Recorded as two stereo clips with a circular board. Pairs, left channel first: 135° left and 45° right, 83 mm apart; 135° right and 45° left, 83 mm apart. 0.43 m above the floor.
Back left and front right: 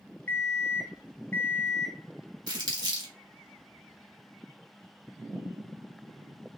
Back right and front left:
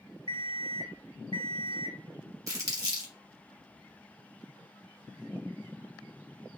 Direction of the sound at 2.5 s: 5° right.